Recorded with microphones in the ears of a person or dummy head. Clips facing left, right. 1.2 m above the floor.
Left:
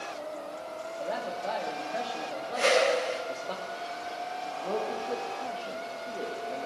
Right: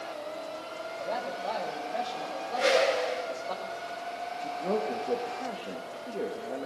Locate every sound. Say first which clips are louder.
1.0 s a man speaking: even; 15° left (ahead or behind), 2.5 m
2.5 s a whoosh: even; 60° left (ahead or behind), 7.5 m
4.4 s a man speaking: right 3 dB; 25° right (ahead or behind), 1.3 m